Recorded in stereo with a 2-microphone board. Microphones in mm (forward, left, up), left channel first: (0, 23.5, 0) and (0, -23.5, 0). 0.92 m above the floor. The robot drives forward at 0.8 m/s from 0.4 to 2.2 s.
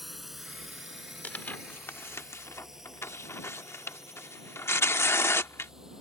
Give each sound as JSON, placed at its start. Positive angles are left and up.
{"t": 0.0, "sound": "a drone", "side_deg": -5}
{"t": 1.2, "sound": "tearing paper", "side_deg": 35}